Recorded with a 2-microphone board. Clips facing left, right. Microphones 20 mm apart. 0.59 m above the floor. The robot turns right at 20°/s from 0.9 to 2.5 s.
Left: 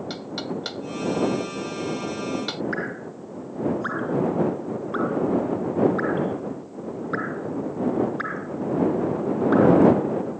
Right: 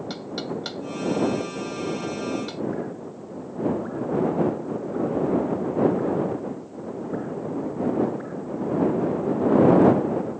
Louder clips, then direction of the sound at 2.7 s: Left 2 dB; 80° left.